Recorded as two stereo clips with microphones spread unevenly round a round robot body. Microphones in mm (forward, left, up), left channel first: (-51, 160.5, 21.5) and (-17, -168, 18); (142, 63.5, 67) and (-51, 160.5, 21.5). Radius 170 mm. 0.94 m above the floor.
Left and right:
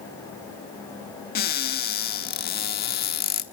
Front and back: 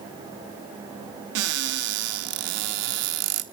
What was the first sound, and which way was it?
A cupboard door, 160° left.